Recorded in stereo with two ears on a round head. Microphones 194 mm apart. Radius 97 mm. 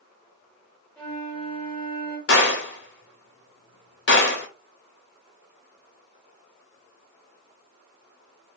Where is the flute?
5° left (ahead or behind), 1.7 m.